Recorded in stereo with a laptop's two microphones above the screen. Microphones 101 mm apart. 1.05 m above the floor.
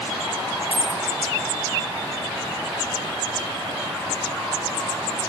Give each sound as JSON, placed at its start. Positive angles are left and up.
{"t": 0.7, "sound": "a dropped coin", "side_deg": 75, "distance_m": 1.5}